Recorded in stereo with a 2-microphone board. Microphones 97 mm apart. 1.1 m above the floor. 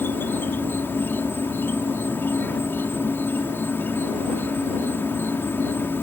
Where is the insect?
20° left (ahead or behind).